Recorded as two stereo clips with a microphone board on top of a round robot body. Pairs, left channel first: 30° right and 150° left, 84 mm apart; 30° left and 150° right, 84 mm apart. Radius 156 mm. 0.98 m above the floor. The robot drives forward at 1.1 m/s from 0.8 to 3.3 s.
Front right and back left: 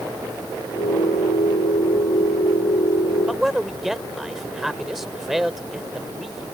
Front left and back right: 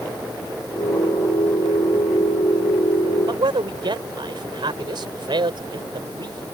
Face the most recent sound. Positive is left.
turn(degrees=-125)